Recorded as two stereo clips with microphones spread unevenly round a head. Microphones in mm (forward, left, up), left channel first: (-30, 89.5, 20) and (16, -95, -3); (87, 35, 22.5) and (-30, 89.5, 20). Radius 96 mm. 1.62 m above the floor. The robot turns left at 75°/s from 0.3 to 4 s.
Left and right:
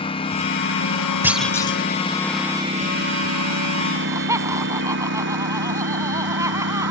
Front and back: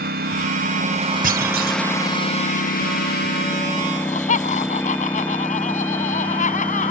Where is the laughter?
5° left; by 6.9 s straight ahead.